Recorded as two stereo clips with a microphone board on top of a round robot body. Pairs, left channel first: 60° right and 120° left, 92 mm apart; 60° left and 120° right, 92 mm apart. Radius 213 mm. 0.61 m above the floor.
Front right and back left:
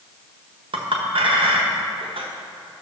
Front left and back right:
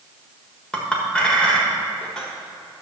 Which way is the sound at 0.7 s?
140° left.